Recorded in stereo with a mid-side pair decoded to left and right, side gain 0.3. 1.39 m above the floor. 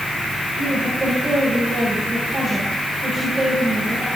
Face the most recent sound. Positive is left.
turn(degrees=-30)